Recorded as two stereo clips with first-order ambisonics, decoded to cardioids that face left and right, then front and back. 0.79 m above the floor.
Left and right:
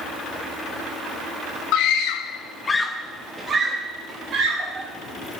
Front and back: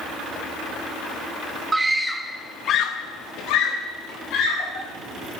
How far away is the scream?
About 0.7 m.